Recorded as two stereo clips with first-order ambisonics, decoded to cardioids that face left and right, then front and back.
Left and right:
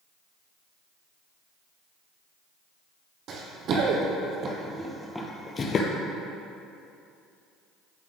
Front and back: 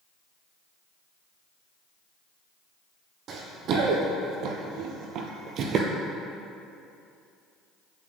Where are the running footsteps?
130° right, 1.7 m; by 5.9 s 135° left, 1.0 m.